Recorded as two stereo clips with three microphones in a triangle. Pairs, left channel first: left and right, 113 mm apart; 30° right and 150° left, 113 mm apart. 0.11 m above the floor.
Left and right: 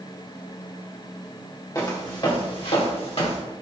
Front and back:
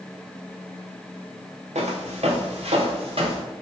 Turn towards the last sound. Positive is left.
turn(degrees=115)